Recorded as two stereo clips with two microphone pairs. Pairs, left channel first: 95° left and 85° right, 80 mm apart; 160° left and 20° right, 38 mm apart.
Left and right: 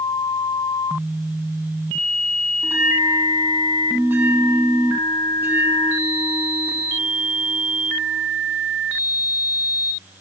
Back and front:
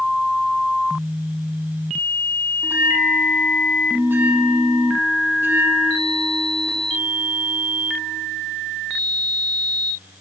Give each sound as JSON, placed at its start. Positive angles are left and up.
{"t": 2.6, "sound": "a bell", "azimuth_deg": -25, "distance_m": 1.8}